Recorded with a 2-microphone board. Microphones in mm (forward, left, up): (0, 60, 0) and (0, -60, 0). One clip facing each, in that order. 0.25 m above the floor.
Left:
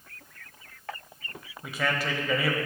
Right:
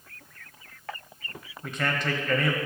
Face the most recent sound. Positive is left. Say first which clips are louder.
# even
turn(degrees=10)  # may be behind; listen again after turning